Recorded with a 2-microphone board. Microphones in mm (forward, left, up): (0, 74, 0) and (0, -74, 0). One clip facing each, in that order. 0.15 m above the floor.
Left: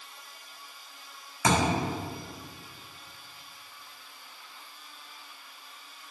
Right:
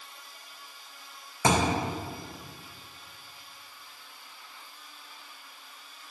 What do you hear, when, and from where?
1.4 s a thud: 25° right (ahead or behind), 3 m